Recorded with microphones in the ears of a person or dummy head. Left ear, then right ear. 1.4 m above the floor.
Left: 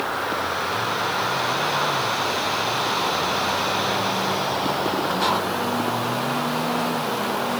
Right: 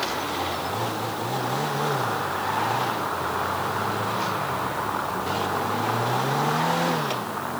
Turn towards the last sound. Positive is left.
No sound to turn to.